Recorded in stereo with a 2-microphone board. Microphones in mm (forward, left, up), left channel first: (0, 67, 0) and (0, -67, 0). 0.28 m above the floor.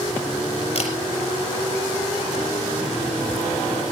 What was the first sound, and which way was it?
A camera shutter, 50° left (ahead or behind).